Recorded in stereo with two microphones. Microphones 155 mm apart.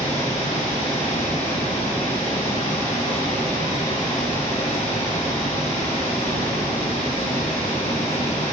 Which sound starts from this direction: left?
Running water, at 0.0 s.